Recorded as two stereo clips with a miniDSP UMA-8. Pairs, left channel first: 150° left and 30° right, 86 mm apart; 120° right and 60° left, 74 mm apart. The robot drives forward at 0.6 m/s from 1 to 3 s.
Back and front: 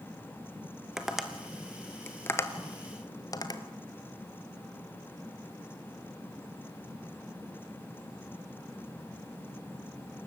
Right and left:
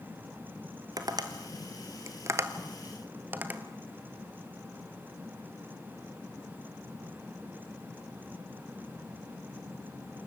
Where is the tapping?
55° left, 1.3 m; by 3.6 s 120° left, 1.2 m.